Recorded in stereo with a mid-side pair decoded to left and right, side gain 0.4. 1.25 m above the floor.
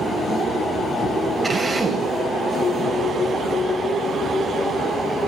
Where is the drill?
25° right, 8 m.